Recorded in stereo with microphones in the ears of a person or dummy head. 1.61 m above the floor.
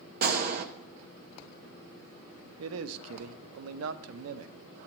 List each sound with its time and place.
0.2 s a gunshot: 50° right (ahead or behind), 0.6 m
2.6 s a man speaking: 80° right, 0.6 m